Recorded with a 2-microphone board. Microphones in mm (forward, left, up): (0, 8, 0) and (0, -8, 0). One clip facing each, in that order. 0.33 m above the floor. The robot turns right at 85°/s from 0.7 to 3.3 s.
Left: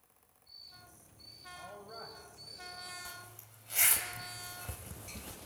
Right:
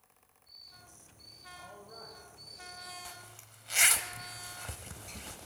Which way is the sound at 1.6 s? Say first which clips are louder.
Left 3 dB; 40° left.